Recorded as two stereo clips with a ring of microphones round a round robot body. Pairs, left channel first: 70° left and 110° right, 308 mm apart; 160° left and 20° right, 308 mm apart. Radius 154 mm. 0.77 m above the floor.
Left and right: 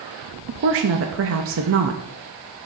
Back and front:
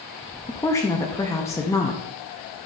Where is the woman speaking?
125° right, 0.6 m.